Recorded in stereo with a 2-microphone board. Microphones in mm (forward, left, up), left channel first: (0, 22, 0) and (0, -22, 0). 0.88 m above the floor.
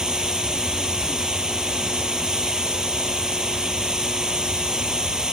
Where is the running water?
15° right (ahead or behind).